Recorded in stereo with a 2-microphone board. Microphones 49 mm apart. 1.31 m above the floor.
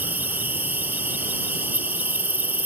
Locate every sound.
0.0 s an insect: 45° right (ahead or behind)